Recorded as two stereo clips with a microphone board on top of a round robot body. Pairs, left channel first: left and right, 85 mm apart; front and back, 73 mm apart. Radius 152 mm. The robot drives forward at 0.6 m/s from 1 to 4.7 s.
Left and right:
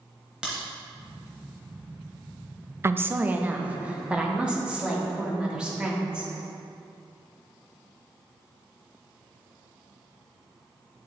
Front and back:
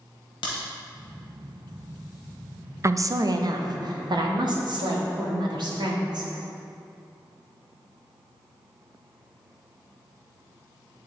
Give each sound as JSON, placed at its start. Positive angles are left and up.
{"t": 0.4, "sound": "a crack", "azimuth_deg": -10, "distance_m": 0.8}
{"t": 2.8, "sound": "a woman speaking", "azimuth_deg": -140, "distance_m": 0.6}